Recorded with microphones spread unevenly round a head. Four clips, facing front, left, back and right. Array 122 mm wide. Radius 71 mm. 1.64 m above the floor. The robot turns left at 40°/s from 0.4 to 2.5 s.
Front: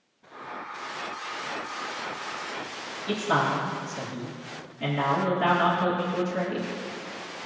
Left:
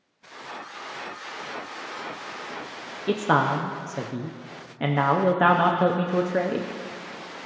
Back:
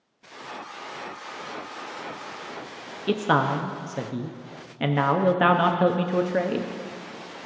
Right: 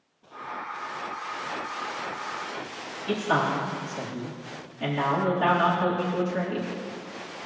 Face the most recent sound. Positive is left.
turn(degrees=115)